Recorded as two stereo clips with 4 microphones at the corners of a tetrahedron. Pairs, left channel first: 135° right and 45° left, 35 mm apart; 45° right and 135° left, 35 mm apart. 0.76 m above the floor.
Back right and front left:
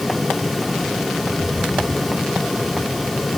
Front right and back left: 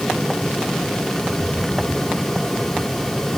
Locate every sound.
1.2 s a rattle: 75° right, 8 m